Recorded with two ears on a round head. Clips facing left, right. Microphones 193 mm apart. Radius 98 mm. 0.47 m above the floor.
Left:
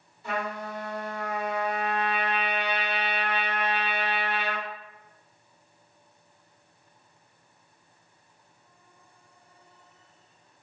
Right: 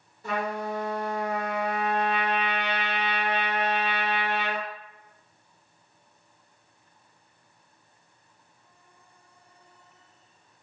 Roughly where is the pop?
I don't hear a pop.